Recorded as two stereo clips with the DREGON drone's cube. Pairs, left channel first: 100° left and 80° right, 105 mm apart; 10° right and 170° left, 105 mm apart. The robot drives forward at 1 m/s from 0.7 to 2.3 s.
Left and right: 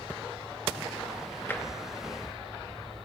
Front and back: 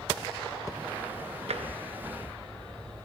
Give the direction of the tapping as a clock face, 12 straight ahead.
6 o'clock.